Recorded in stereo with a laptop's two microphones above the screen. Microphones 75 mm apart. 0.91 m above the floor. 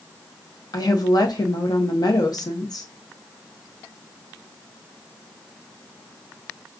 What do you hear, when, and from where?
0.7 s a woman speaking: 60° left (ahead or behind), 0.7 m